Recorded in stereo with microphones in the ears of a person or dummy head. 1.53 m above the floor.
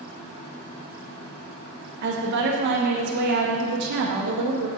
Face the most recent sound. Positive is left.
turn(degrees=-50)  # may be behind; listen again after turning